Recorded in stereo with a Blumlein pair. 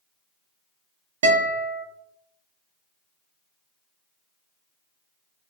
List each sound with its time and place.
1.2 s a guitar: 60° right, 0.5 m